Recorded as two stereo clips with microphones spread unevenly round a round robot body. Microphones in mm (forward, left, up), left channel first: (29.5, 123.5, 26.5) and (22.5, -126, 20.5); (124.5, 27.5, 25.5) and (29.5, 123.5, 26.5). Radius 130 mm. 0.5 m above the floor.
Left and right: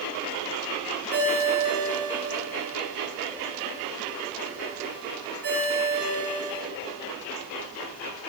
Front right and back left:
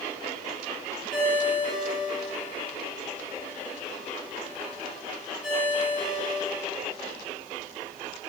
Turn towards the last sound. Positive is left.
turn(degrees=-90)